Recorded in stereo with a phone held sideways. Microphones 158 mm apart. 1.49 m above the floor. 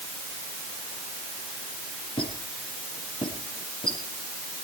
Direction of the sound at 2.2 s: 35° left (ahead or behind).